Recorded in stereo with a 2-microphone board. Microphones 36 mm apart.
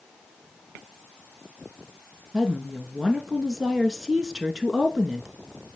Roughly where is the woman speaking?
Centre.